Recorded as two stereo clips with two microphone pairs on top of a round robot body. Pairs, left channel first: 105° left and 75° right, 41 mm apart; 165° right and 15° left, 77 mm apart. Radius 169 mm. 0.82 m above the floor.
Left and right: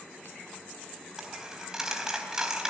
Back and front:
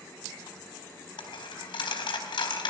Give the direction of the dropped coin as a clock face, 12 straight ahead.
5 o'clock.